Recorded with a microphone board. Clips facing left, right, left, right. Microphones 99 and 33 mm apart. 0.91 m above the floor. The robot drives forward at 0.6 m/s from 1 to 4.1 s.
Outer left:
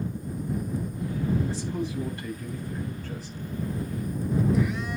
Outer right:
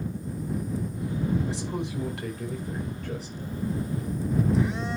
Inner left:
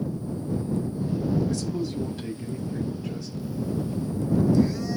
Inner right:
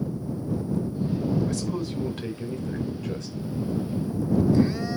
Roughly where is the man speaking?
Right.